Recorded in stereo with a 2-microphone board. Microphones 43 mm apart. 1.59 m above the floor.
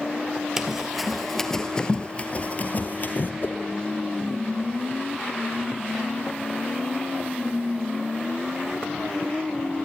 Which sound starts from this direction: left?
A whoosh, at 3.4 s.